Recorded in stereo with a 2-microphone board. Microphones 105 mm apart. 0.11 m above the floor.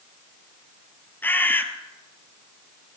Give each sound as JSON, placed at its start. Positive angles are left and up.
{"t": 1.2, "sound": "a bird", "side_deg": 20, "distance_m": 1.0}